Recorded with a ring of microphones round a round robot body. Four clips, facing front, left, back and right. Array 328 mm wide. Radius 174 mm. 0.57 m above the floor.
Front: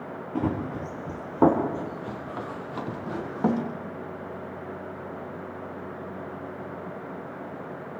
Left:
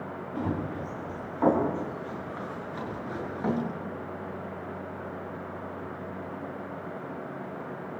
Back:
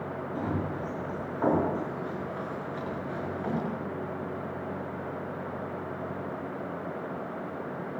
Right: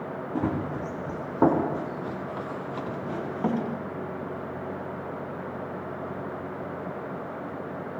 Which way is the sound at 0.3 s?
45° right.